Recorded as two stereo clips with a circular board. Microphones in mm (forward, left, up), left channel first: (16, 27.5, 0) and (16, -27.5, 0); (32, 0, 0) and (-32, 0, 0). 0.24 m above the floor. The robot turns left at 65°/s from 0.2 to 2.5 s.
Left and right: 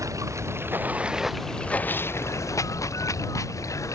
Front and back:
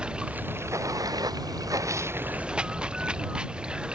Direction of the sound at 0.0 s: 105° right.